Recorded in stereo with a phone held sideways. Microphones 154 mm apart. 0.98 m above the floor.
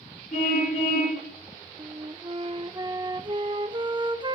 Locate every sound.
0.3 s a car horn: 50° left (ahead or behind), 5 m
1.8 s a flute: 30° right (ahead or behind), 0.6 m